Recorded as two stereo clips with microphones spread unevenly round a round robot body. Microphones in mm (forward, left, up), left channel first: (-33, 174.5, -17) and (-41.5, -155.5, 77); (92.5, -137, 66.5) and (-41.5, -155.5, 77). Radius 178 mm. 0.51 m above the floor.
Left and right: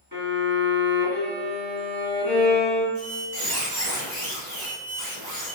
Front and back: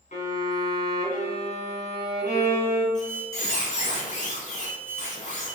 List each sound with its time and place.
0.1 s a violin: 30° right, 1.7 m
3.0 s a squeak: 25° right, 1.2 m